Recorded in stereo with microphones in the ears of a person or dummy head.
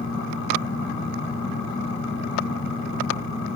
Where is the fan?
25° left (ahead or behind), 1.3 m.